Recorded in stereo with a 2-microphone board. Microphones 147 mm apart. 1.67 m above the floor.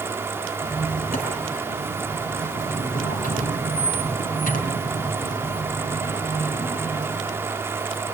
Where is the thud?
I don't hear a thud.